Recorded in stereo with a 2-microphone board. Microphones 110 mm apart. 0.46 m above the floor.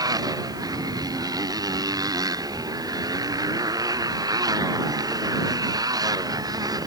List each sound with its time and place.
0.0 s a motorcycle: 35° right (ahead or behind)